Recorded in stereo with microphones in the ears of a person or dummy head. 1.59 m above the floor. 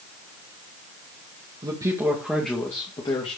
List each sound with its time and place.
1.6 s a man speaking: 20° right (ahead or behind), 2 m; by 3.4 s 30° left (ahead or behind), 2 m